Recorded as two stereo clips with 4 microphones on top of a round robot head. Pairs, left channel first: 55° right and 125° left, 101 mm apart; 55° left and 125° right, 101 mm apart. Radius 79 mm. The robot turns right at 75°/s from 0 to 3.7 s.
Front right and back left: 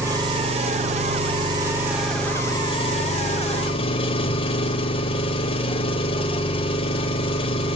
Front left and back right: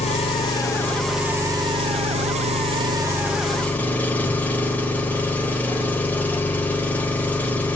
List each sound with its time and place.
0.0 s an engine running: 60° left, 2 m; by 7.8 s 20° right, 2 m